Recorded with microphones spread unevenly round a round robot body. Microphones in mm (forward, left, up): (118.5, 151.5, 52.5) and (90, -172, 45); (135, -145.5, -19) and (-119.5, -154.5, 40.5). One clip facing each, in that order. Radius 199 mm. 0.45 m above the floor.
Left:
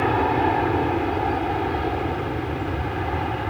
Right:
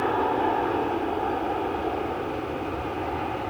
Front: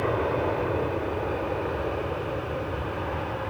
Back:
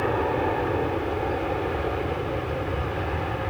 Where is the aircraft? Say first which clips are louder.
Left 3 dB, back 1 dB; 85° left; by 3.5 s 120° left.